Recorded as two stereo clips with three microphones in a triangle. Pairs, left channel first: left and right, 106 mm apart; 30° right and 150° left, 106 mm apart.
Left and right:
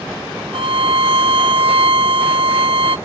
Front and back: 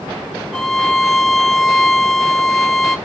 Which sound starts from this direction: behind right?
A violin, at 0.5 s.